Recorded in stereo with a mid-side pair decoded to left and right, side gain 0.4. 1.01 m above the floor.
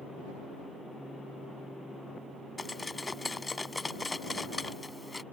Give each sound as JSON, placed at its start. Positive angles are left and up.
{"t": 2.6, "sound": "cutlery clinking", "azimuth_deg": 25}